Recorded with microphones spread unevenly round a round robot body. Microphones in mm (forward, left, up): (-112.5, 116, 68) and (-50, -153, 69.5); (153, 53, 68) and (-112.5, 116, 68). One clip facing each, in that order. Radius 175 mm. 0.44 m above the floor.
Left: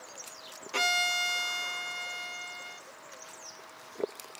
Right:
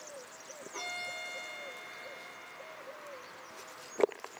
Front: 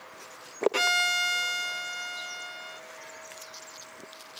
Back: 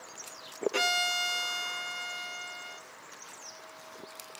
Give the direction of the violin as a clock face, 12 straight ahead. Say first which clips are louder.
Left 13 dB, front 1 dB; 9 o'clock.